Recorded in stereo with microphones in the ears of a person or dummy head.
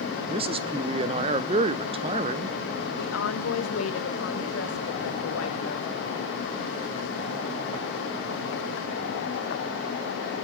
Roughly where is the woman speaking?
Left.